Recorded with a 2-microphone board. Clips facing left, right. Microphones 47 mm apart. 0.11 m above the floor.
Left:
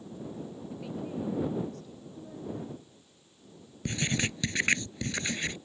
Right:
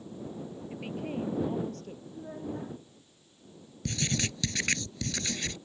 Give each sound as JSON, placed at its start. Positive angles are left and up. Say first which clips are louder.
{"t": 0.7, "sound": "a woman speaking", "louder": "right 2 dB", "side_deg": -50}
{"t": 2.1, "sound": "a child speaking", "louder": "right 1 dB", "side_deg": -45}
{"t": 3.9, "sound": "writing", "louder": "left 2 dB", "side_deg": 25}